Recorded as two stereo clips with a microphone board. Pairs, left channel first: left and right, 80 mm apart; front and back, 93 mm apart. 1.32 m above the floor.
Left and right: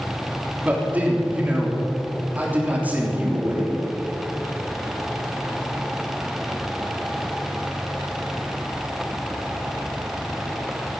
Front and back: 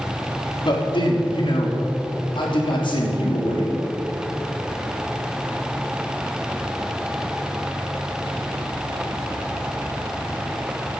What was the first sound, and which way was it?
A man speaking, 20° right.